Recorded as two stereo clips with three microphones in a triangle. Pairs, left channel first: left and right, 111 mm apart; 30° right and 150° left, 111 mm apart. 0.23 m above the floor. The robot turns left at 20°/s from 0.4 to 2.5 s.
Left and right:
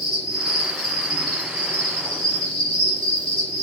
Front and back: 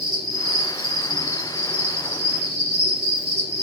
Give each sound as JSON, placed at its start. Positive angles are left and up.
{"t": 0.0, "sound": "an insect", "azimuth_deg": 130, "distance_m": 1.4}